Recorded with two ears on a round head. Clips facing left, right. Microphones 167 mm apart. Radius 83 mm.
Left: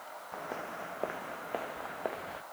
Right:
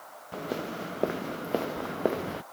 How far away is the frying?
No frying in this recording.